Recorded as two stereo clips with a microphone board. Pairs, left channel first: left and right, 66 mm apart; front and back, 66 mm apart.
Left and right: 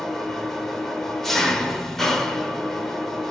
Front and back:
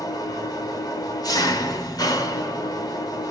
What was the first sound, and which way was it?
An engine running, 5° left.